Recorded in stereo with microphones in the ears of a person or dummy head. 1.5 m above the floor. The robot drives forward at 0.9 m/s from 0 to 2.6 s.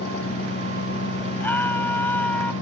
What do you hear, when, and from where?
0.0 s an engine running: 65° left (ahead or behind); by 2.6 s 70° left (ahead or behind)
1.4 s a scream: 10° left (ahead or behind)